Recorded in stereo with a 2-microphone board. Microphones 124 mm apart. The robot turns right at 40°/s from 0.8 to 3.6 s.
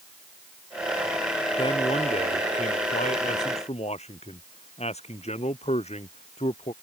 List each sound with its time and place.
1.6 s a man speaking: 40° left; by 6.7 s 120° left